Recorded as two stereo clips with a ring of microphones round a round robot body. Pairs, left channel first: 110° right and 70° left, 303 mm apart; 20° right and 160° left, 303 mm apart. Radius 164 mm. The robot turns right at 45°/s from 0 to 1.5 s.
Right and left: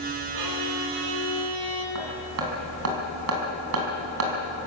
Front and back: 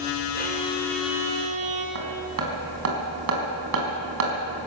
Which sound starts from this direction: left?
Hammering, at 1.9 s.